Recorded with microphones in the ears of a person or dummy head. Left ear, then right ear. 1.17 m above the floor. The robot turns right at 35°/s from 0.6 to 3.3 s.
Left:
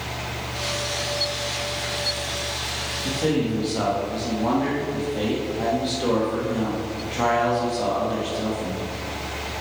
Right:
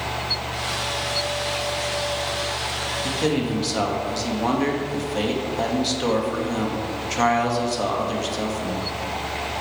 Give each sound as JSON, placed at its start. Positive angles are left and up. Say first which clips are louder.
{"t": 3.0, "sound": "a man speaking", "louder": "left 1 dB", "side_deg": -75, "distance_m": 1.8}